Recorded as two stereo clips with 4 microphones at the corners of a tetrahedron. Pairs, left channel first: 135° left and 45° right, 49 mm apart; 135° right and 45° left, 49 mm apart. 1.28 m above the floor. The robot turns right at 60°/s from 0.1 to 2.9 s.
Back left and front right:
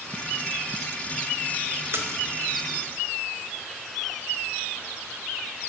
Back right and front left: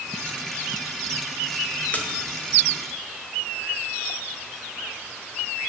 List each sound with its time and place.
1.9 s a splash: 75° right, 0.6 m; by 2.2 s 60° right, 0.6 m